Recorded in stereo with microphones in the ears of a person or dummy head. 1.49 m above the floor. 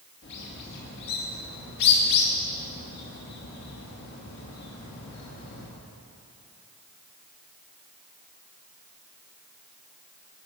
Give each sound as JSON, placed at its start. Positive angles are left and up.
{"t": 0.2, "sound": "a bird", "side_deg": 60, "distance_m": 2.5}